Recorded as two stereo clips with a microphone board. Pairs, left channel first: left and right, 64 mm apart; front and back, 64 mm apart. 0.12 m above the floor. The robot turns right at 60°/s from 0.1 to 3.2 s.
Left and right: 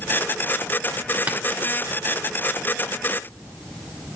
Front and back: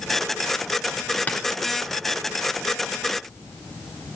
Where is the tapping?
40° right, 1.9 m; by 1.4 s 35° right, 1.9 m.